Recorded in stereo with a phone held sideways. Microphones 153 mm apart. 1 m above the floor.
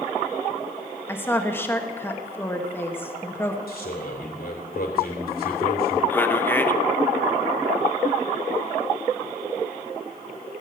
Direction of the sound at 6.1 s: 10° left (ahead or behind).